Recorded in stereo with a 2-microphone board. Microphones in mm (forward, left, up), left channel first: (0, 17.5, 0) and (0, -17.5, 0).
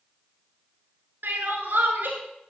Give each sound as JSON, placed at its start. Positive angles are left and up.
{"t": 1.2, "sound": "crying", "side_deg": -75, "distance_m": 1.6}